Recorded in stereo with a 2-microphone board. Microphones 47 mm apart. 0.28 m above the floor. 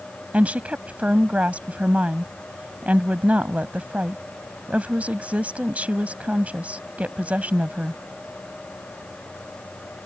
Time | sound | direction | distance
0.3 | a woman speaking | 35° right (ahead or behind) | ?